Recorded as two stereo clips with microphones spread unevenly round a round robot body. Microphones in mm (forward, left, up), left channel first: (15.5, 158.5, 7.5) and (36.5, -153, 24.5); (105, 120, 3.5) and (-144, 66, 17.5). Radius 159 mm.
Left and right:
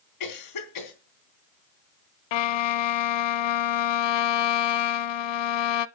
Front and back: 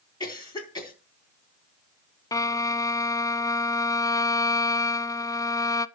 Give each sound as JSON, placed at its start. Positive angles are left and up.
{"t": 0.2, "sound": "a cough", "azimuth_deg": 85, "distance_m": 3.5}
{"t": 2.3, "sound": "a violin", "azimuth_deg": 90, "distance_m": 0.6}